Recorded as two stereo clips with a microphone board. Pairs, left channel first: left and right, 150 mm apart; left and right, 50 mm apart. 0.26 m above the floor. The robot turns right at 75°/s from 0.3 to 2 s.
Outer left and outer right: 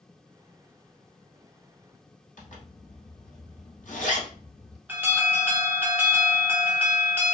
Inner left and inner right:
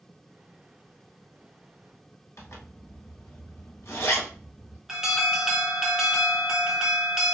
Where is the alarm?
10° right (ahead or behind), 0.8 m.